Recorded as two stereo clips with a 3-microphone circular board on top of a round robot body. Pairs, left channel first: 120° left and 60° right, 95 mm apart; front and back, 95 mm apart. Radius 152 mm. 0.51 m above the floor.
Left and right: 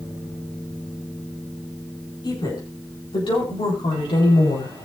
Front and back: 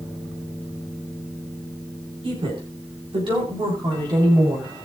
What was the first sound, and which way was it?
A woman speaking, 160° left.